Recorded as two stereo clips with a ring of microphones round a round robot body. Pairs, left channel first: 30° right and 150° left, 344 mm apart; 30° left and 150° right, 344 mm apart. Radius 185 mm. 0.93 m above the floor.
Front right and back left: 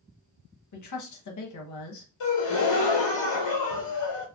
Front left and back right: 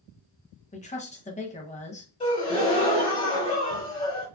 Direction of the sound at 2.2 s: 40° right.